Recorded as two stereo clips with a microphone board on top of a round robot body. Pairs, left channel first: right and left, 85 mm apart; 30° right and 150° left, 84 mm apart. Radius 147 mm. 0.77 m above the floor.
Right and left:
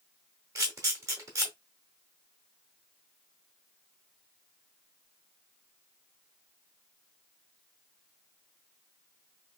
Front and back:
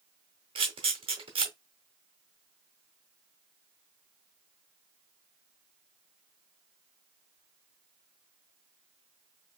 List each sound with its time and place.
0.6 s a camera shutter: 145° left, 0.6 m